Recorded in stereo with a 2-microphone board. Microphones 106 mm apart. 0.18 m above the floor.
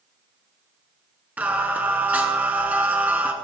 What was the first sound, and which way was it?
Singing, 15° right (ahead or behind).